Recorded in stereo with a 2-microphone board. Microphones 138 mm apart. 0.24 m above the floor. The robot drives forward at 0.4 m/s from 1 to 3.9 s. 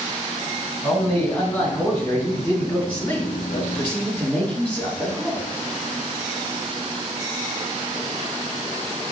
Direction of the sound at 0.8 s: 20° left (ahead or behind).